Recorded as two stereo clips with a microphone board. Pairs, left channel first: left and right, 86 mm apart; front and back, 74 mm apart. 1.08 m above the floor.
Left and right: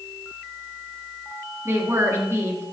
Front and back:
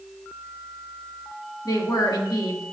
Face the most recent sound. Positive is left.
turn(degrees=-35)